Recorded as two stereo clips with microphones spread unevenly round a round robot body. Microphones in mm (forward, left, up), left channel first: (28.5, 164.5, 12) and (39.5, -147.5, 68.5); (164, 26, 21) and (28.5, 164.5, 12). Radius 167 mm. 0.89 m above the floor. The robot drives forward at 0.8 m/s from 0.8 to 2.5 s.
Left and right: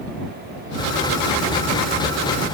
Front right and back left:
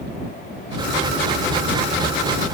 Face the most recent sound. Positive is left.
No sound to turn to.